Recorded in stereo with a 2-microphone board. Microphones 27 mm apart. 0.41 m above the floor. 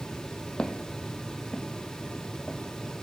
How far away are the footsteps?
About 0.8 m.